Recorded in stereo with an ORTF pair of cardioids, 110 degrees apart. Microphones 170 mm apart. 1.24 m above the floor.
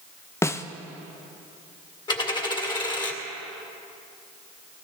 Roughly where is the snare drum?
Ahead.